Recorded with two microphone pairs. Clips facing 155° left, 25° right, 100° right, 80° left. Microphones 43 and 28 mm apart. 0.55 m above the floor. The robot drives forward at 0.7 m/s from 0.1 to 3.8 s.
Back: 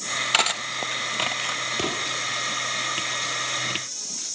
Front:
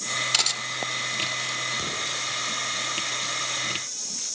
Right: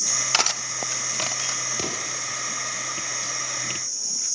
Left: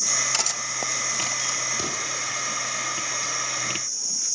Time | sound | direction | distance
0.3 | cutlery clinking | 145° right | 0.8 m
1.8 | an explosion | 160° right | 3 m